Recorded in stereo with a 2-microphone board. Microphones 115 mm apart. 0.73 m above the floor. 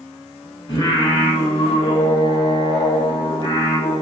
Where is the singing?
40° left (ahead or behind), 0.7 m.